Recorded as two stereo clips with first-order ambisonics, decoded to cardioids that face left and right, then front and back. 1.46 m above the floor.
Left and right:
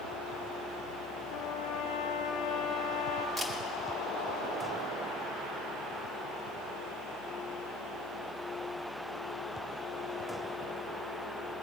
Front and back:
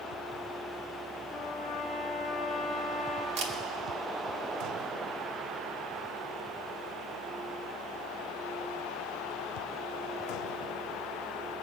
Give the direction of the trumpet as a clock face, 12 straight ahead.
10 o'clock.